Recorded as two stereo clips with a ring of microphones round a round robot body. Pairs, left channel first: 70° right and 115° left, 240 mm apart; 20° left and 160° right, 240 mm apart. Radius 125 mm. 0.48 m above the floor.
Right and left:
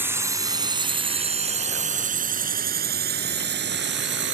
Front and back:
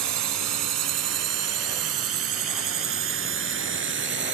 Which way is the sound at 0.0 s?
165° right.